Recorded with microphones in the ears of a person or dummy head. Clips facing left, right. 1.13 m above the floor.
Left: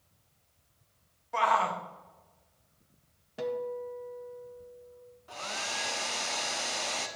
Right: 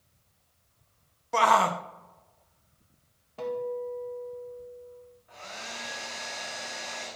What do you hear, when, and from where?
1.3 s a shout: 50° right (ahead or behind), 0.5 m
3.4 s a guitar: 15° left (ahead or behind), 0.9 m
5.3 s a hair dryer: 50° left (ahead or behind), 0.9 m